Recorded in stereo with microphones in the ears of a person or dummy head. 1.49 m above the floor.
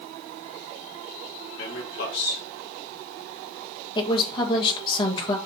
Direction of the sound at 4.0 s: 30° left (ahead or behind).